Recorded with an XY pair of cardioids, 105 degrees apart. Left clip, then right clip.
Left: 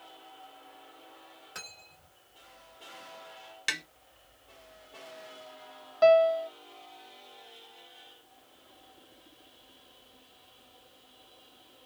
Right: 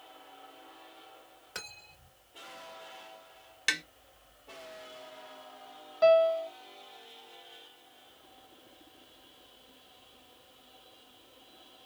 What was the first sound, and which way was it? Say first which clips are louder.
Cutlery clinking: right 2 dB; 30° right.